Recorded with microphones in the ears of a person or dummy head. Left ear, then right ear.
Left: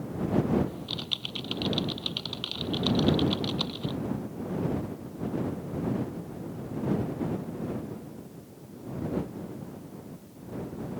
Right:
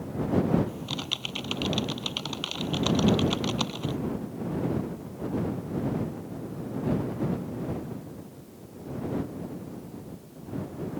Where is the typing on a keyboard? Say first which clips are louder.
Right 1 dB; 40° right (ahead or behind).